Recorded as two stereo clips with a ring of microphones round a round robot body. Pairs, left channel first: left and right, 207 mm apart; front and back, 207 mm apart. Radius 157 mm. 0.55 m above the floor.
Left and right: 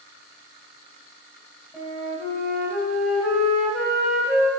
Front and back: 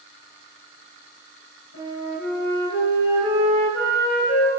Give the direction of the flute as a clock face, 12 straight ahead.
12 o'clock.